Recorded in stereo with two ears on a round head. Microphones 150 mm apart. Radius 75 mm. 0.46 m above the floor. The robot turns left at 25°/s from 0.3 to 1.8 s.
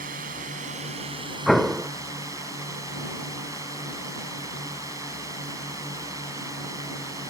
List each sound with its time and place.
0.0 s a drone: 120° right; by 7.3 s 160° right
1.5 s an explosion: centre (ahead or behind); by 1.9 s 5° right (ahead or behind)